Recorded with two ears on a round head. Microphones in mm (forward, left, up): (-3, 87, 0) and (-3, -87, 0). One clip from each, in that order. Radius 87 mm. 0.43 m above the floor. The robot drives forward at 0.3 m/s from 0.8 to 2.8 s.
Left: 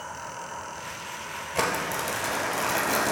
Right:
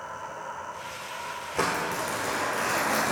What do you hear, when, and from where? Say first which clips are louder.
0.0 s an insect: even; 20° right (ahead or behind), 3 m; by 3.1 s 25° right (ahead or behind), 2.5 m
1.6 s crumpling: left 1 dB; 20° left (ahead or behind), 1.5 m; by 3.1 s 15° left (ahead or behind), 1.8 m